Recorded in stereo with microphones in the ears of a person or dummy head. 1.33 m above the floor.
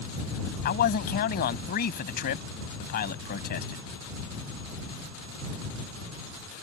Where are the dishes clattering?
I don't hear dishes clattering.